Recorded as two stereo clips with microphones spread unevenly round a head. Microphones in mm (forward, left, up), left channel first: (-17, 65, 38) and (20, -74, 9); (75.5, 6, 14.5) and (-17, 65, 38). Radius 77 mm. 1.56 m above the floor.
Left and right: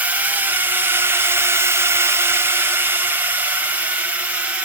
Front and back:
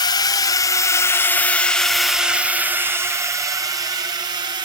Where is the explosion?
No explosion in this recording.